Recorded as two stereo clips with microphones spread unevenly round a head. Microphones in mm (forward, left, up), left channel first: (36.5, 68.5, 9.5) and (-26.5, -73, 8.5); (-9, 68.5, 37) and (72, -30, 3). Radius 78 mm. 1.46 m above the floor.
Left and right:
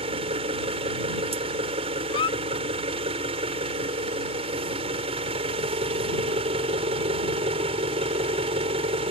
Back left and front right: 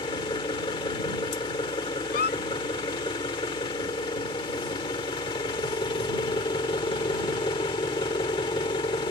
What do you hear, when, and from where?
0.0 s an engine running: 170° right
2.1 s a squeak: 130° left